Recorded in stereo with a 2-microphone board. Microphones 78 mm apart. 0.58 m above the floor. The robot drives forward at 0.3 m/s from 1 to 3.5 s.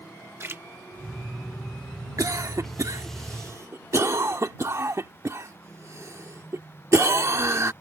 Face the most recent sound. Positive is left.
turn(degrees=-35)  # may be behind; listen again after turning